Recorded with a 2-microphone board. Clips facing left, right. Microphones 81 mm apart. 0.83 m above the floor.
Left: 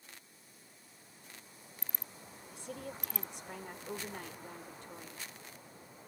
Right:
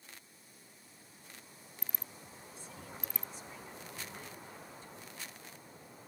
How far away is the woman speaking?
About 2 m.